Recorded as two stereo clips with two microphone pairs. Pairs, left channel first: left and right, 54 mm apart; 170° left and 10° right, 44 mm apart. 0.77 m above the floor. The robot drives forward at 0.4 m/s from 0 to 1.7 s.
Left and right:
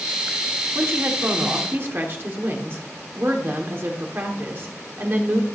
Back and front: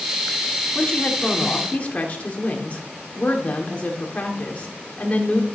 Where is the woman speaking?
125° right, 2 m; by 5.5 s 135° right, 2 m.